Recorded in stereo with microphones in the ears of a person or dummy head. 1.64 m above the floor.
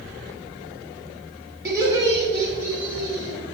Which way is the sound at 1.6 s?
20° right (ahead or behind).